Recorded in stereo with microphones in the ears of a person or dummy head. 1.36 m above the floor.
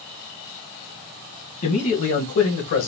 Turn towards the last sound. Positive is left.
turn(degrees=70)  # may be behind; listen again after turning